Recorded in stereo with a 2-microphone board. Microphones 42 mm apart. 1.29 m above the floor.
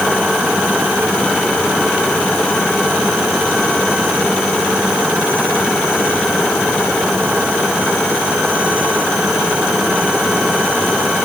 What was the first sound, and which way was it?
Only background noise.